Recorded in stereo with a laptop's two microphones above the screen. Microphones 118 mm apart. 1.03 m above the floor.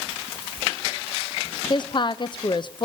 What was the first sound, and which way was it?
A woman speaking, 45° left (ahead or behind).